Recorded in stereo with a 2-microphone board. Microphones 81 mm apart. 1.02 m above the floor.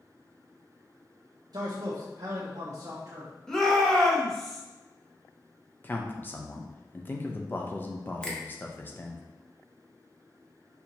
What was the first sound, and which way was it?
A man speaking, 60° right (ahead or behind).